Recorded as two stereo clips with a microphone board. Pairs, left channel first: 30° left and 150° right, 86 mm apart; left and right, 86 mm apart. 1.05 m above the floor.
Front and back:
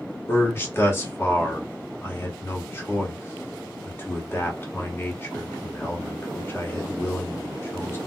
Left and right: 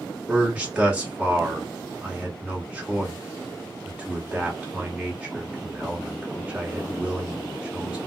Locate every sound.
0.3 s a man speaking: 20° right, 1.1 m